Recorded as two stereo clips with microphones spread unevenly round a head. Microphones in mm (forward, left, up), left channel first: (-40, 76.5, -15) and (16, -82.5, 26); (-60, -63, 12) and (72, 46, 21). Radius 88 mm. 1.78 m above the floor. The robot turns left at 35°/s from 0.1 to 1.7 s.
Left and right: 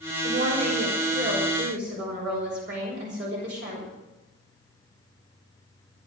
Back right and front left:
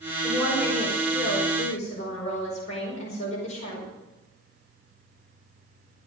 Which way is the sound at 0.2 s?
40° right.